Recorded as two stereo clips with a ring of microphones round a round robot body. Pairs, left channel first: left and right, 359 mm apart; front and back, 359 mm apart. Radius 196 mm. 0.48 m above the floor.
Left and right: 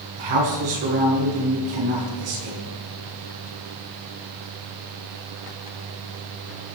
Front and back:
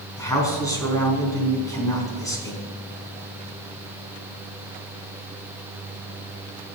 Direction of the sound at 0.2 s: 80° right.